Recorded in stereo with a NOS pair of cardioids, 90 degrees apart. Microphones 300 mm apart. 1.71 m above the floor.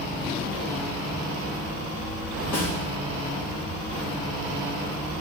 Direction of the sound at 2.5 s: 55° left.